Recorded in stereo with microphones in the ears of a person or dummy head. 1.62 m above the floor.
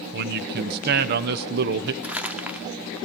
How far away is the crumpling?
About 0.9 m.